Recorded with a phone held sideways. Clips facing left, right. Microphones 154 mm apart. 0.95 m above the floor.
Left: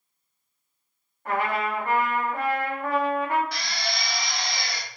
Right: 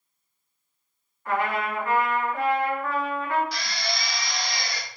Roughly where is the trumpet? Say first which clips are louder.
Even; left.